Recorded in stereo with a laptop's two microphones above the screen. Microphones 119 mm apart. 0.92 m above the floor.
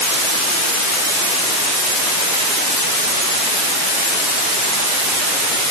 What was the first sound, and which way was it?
Only background noise.